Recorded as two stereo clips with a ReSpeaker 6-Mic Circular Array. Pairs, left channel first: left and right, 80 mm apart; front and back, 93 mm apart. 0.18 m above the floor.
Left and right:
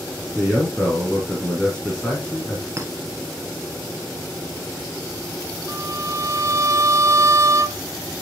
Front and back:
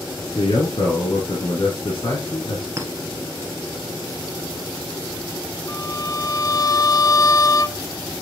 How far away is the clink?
About 1.5 m.